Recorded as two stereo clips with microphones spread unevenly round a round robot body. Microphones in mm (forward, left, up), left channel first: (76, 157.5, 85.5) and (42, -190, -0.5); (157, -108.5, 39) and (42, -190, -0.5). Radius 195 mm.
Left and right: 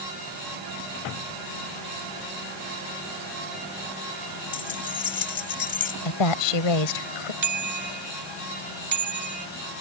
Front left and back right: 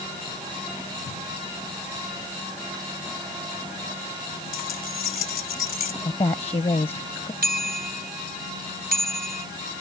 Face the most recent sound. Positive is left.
turn(degrees=-140)